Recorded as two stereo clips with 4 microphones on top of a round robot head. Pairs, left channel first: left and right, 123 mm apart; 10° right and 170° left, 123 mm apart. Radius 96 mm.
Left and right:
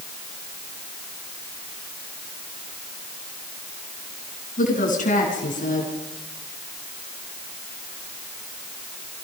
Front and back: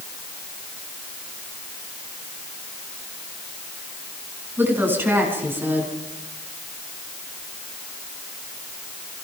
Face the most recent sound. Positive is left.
turn(degrees=100)